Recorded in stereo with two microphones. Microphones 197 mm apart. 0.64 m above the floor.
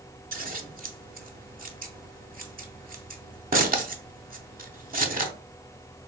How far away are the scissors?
About 0.6 m.